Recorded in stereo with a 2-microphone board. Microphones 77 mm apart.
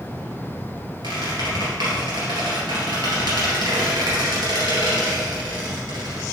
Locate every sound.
1.0 s a squeak: 80° right, 2.5 m